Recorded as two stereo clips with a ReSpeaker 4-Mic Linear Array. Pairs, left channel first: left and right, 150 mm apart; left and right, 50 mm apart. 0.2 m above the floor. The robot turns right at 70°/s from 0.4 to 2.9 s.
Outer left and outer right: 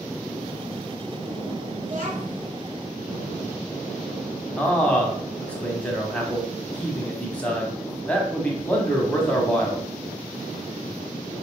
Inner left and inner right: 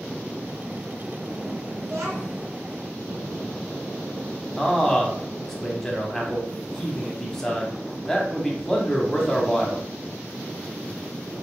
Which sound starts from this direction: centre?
A man speaking, at 4.6 s.